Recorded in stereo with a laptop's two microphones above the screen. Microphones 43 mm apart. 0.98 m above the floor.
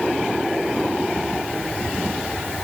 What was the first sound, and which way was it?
Only background noise.